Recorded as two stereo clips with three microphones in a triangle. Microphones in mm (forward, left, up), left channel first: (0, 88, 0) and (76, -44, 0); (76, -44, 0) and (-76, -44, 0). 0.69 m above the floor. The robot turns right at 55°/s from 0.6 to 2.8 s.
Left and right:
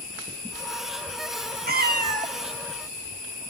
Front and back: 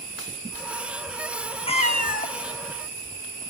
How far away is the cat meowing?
About 0.7 m.